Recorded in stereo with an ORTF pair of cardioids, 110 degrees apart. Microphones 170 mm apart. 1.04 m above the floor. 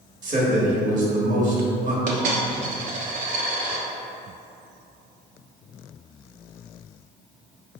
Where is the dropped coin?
55° right, 0.9 m.